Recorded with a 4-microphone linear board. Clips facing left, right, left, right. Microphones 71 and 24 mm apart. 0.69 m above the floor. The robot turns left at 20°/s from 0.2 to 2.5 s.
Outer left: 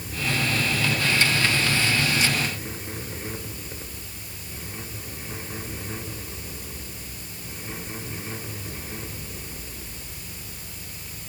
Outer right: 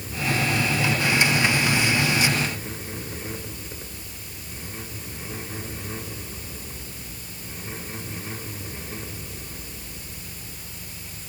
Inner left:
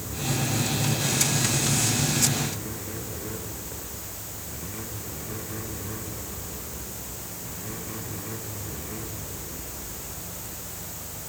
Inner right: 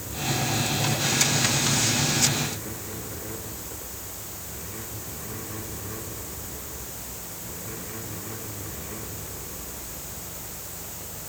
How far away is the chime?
No chime in this recording.